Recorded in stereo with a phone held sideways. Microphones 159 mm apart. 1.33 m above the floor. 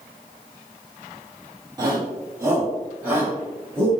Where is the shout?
25° right (ahead or behind), 2 m; by 3.9 s 15° right (ahead or behind), 5 m.